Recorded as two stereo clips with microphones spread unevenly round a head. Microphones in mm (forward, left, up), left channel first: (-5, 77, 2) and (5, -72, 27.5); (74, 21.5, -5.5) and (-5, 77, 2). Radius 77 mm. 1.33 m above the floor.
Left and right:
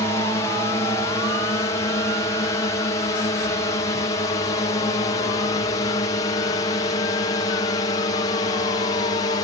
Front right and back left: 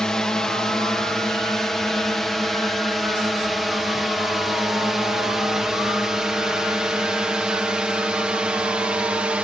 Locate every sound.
0.0 s a drone: 45° left; by 9.5 s 75° left